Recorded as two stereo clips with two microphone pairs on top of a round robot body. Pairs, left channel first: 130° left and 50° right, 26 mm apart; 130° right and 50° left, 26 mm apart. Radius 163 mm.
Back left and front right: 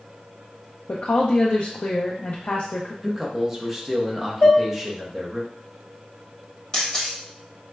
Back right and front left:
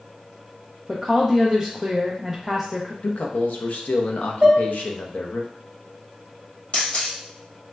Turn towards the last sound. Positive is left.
turn(degrees=-165)